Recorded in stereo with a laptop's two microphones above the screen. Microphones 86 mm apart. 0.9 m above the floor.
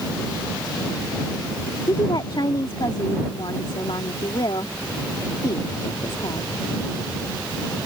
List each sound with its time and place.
1.9 s a woman speaking: 65° left (ahead or behind)